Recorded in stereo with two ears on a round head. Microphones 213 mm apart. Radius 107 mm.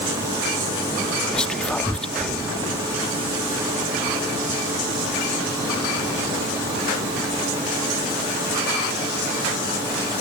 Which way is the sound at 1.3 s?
5° left (ahead or behind).